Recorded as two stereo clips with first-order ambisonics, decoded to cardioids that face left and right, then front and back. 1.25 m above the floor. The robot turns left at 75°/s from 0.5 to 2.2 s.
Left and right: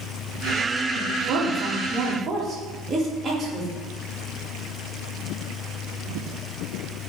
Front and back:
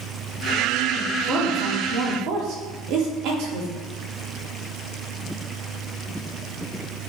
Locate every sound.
0.9 s a woman speaking: 70° right, 1.1 m; by 3.7 s 165° right, 1.1 m